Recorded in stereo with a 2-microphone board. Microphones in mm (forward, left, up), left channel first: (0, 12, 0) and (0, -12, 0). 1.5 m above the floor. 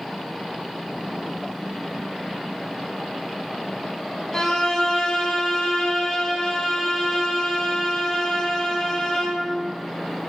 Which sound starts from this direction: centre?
A violin, at 4.3 s.